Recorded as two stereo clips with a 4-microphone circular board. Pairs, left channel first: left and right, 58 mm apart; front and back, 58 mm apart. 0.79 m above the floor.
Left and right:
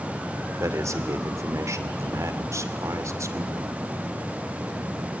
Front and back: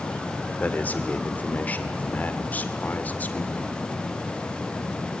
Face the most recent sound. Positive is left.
turn(degrees=-60)